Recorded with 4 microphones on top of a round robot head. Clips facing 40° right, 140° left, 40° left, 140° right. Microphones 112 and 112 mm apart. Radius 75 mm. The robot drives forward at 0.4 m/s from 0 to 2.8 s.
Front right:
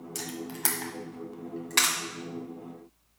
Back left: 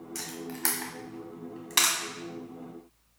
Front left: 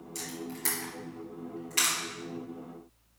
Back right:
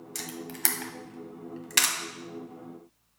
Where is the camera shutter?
110° right, 1.2 m; by 1.9 s 135° right, 1.5 m.